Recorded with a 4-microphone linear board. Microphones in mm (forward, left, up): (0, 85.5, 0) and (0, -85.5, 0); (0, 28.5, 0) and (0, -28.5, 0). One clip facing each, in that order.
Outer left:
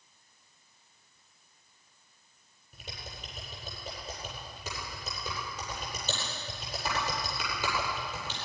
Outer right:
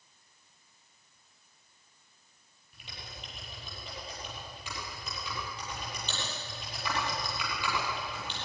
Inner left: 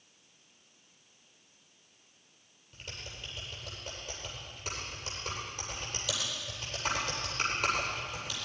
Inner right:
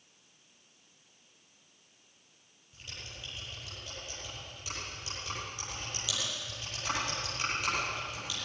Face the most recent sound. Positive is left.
turn(degrees=45)  # may be behind; listen again after turning